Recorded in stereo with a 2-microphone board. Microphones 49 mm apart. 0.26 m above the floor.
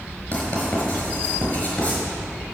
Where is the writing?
30° left (ahead or behind), 4.5 m.